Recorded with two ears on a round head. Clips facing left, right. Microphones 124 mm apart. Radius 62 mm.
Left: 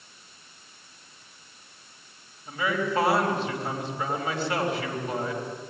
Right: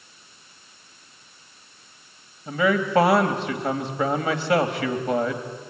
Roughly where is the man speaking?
Right.